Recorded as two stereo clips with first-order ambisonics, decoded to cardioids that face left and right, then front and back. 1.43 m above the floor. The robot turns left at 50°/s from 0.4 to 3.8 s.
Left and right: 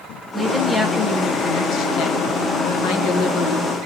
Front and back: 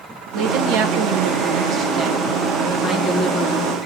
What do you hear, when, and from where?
0.3 s a woman speaking: 165° right, 0.6 m; by 3.8 s 30° left, 0.6 m